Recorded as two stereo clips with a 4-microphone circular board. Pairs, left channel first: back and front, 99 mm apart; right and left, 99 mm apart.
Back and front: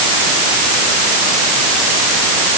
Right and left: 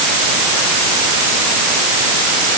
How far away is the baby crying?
I don't hear a baby crying.